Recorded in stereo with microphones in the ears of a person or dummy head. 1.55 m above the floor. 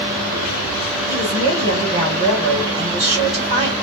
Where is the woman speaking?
20° right (ahead or behind), 2.0 m.